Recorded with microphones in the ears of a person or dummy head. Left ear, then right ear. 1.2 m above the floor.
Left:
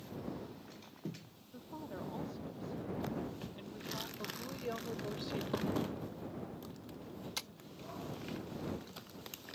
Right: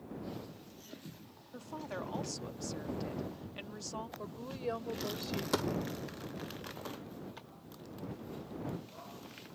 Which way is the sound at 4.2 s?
20° right (ahead or behind).